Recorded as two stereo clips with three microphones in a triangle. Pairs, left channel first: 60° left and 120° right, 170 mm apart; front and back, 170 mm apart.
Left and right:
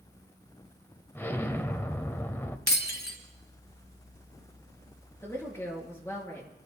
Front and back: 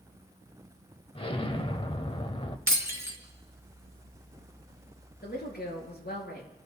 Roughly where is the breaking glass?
Right.